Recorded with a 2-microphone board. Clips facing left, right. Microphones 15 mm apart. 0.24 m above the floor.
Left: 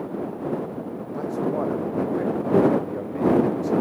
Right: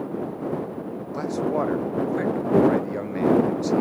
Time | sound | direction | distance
1.1 | a man speaking | 60° right (ahead or behind) | ?